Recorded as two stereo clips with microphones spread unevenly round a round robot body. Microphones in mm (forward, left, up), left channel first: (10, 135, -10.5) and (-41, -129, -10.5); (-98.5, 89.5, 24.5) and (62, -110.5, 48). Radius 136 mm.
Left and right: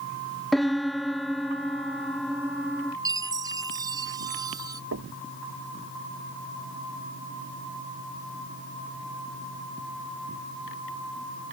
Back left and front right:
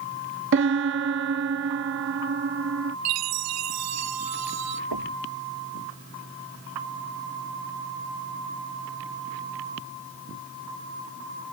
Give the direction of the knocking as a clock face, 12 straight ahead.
2 o'clock.